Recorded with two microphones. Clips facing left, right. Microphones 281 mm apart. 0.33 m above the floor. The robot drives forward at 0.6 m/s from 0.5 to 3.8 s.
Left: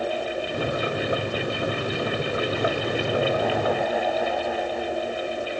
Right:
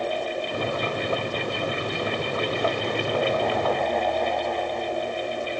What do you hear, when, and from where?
Only background noise.